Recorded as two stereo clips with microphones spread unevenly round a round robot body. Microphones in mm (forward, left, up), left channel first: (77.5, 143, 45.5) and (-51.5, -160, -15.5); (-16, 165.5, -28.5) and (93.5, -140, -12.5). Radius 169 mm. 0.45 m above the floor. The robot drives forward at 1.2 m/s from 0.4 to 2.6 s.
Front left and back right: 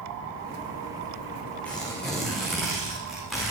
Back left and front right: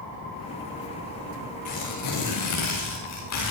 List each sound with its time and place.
1.6 s tearing paper: 155° left, 6.5 m